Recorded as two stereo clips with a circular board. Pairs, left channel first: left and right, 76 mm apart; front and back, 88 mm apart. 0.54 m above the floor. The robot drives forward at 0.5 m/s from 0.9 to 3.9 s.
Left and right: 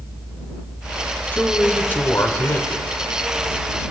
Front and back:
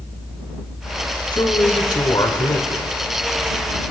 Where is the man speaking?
25° left, 1.9 m; by 2.8 s 40° left, 1.3 m.